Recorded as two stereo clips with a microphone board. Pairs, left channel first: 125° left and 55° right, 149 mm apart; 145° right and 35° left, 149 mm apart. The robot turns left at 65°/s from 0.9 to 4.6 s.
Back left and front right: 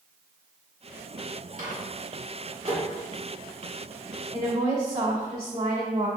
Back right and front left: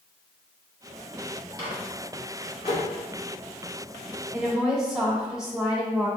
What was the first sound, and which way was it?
A microwave, 30° right.